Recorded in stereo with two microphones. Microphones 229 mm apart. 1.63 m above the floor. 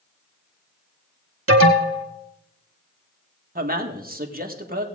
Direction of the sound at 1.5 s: 70° right (ahead or behind).